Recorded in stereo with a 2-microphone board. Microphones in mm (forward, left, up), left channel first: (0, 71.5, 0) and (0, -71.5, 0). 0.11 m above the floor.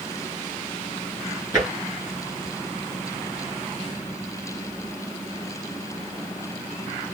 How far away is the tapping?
About 2.0 m.